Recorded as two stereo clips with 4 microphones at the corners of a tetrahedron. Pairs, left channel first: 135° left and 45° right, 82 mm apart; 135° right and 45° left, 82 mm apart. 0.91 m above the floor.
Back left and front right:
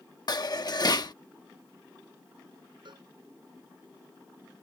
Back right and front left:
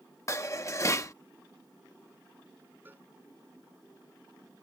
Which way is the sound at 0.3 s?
170° left.